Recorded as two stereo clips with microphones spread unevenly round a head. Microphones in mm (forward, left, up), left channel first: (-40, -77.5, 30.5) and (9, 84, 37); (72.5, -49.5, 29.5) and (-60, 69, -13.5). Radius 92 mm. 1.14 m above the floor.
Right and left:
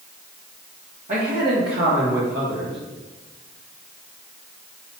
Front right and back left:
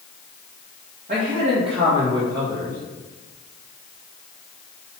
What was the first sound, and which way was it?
A man speaking, 105° left.